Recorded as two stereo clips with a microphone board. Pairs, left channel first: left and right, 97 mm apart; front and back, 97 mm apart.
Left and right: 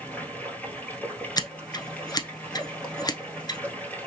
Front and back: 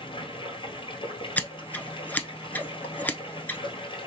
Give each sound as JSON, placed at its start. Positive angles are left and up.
{"t": 0.0, "sound": "running water", "azimuth_deg": 15, "distance_m": 1.4}
{"t": 1.4, "sound": "scissors", "azimuth_deg": 65, "distance_m": 0.7}